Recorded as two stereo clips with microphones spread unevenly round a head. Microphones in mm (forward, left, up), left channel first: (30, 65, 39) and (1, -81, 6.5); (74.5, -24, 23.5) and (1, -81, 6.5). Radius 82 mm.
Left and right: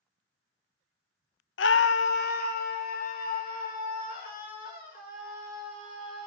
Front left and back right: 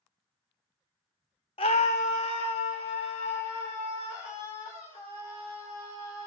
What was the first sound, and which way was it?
A scream, 95° left.